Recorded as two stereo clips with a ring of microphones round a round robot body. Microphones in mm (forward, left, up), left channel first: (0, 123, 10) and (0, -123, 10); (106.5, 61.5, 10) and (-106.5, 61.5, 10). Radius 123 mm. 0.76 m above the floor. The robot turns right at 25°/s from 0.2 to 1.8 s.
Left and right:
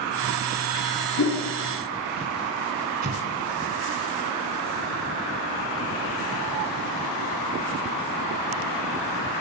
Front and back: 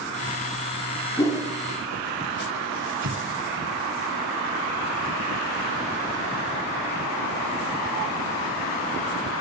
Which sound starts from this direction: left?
A whoosh, at 1.2 s.